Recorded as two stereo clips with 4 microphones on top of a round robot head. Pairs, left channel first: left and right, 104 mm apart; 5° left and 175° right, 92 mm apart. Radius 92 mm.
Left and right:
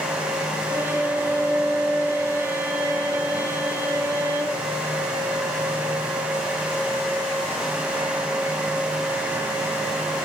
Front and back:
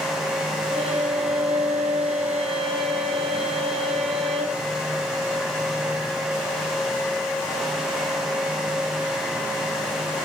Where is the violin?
165° right, 1.2 m.